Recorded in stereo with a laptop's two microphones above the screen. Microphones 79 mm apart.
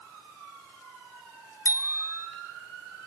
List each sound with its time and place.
1.6 s a bicycle bell: 50° left (ahead or behind), 2 m